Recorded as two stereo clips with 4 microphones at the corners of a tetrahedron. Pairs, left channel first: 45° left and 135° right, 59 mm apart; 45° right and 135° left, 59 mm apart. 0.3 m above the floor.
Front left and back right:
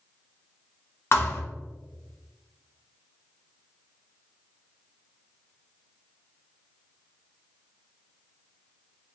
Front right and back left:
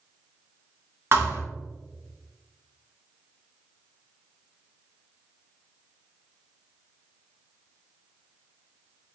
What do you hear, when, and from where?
1.1 s a thud: 85° left, 0.6 m